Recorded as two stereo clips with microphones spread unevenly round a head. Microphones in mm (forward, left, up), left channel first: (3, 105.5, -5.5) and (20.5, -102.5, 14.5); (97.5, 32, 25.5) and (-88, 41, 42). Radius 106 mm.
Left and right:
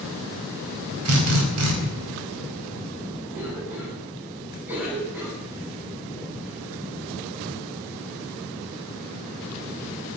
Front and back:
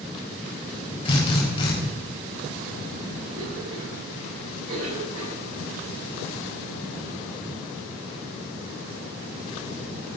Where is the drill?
70° right, 4.5 m.